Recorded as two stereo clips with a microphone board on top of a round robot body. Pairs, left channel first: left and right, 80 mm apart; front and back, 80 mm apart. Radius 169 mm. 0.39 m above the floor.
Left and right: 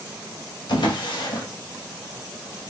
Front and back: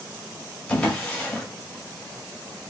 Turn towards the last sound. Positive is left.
turn(degrees=75)